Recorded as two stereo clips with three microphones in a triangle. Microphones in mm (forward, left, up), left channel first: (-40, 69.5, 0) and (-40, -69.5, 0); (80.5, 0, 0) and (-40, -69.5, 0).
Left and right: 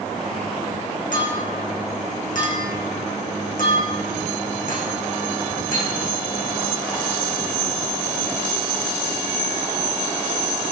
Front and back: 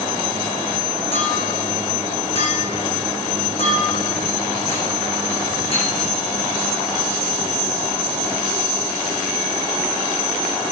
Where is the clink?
75° left, 7.5 m.